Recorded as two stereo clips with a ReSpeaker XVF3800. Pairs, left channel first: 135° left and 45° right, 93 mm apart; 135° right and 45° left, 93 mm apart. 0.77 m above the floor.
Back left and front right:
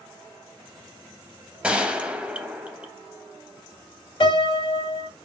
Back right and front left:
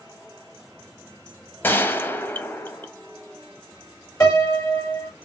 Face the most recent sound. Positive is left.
turn(degrees=170)